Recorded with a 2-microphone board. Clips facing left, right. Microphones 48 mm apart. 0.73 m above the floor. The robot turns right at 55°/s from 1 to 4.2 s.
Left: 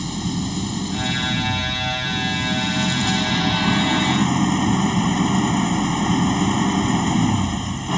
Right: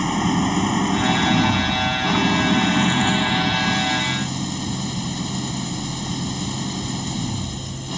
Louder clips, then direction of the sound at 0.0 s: Right 6 dB; 135° right.